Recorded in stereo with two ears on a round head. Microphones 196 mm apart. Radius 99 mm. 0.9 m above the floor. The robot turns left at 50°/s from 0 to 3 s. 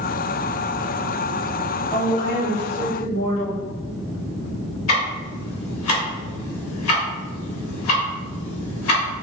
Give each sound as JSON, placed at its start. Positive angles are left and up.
{"t": 1.9, "sound": "a woman speaking", "azimuth_deg": 155, "distance_m": 1.9}
{"t": 4.9, "sound": "ticking", "side_deg": 75, "distance_m": 1.3}